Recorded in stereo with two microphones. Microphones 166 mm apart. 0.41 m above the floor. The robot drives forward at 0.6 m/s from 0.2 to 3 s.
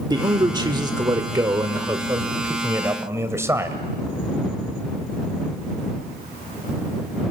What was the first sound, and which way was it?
A man speaking, 25° right (ahead or behind).